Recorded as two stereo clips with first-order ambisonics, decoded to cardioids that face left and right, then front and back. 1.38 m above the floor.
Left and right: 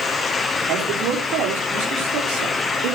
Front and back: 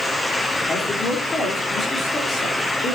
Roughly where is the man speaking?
Ahead right.